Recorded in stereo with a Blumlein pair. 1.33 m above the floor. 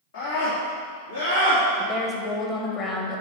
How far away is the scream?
About 3.5 m.